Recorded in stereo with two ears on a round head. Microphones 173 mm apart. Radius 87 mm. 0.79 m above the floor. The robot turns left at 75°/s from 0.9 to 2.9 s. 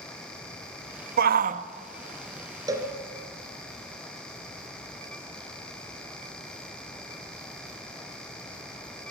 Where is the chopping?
I don't hear chopping.